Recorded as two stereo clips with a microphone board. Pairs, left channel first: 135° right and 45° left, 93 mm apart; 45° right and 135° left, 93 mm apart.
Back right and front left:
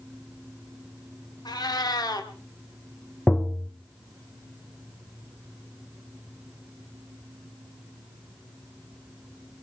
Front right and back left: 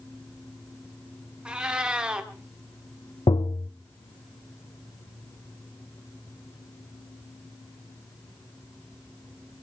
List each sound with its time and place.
1.4 s a cat meowing: 145° right, 1.6 m
3.3 s tapping: 55° right, 0.9 m